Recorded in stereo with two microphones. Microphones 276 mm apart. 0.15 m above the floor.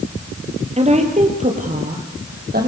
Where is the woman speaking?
25° right (ahead or behind), 3.5 m; by 2.7 s 35° right (ahead or behind), 5 m.